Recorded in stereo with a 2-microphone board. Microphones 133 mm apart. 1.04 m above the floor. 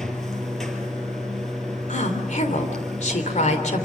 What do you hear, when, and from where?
0.0 s running water: 5° left (ahead or behind), 3 m
1.9 s a woman speaking: 70° left (ahead or behind), 3 m